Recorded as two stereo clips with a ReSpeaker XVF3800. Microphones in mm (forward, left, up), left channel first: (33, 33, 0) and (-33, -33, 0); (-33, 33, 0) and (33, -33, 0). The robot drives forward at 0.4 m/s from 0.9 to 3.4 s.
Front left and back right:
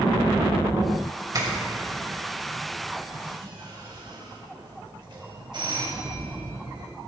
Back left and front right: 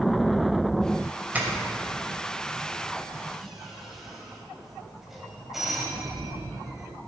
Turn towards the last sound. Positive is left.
turn(degrees=-130)